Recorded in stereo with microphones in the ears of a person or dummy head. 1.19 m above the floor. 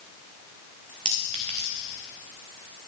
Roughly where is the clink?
Right.